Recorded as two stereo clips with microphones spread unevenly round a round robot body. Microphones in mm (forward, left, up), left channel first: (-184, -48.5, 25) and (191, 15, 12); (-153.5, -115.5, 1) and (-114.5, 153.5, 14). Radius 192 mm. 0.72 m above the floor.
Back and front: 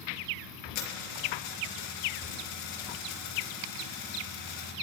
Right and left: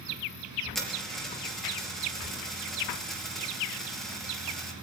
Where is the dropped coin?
175° left, 5 m.